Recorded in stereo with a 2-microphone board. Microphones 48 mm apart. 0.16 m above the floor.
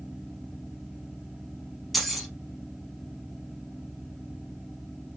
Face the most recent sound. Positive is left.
turn(degrees=0)  # may be behind; listen again after turning